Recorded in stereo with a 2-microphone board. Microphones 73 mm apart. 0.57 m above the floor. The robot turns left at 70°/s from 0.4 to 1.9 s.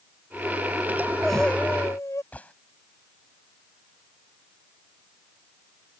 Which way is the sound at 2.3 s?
20° left (ahead or behind).